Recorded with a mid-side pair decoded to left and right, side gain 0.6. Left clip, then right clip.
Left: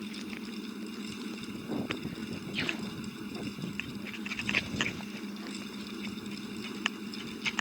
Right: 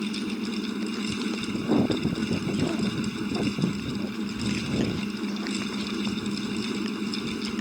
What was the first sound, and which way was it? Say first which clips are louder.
A fan: right 9 dB; 50° right.